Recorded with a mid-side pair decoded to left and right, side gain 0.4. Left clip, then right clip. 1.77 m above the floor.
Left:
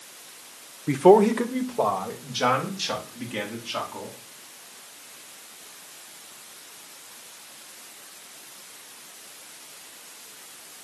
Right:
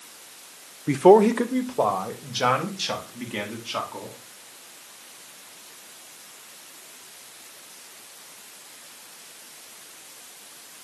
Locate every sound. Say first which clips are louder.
0.9 s a man speaking: right 1 dB; 15° right, 0.6 m; by 4.2 s 25° right, 3.5 m